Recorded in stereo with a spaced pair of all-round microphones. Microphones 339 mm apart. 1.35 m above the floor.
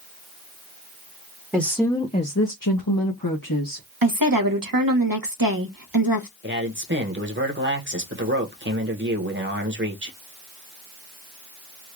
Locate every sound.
1.5 s a woman speaking: 10° right (ahead or behind), 0.8 m; by 3.9 s 70° left (ahead or behind), 1.4 m
4.0 s a woman speaking: 75° right (ahead or behind), 1.0 m
6.4 s a man speaking: 35° right (ahead or behind), 1.1 m